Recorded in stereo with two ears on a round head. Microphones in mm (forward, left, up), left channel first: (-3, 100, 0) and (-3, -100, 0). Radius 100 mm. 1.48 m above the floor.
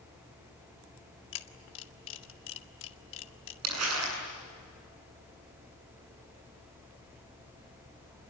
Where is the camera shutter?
60° left (ahead or behind), 1.4 m.